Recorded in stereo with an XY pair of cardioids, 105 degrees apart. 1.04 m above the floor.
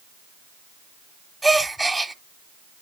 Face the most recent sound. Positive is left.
turn(degrees=-10)